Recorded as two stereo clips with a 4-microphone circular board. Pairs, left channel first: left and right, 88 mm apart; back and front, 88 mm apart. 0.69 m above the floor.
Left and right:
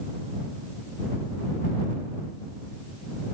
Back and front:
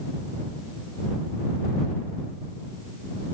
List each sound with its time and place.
Only background noise.